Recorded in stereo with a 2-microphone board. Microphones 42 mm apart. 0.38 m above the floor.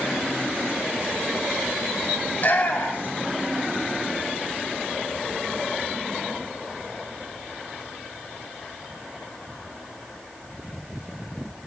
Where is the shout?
45° left (ahead or behind), 1.4 m; by 3.3 s 65° left (ahead or behind), 2.5 m.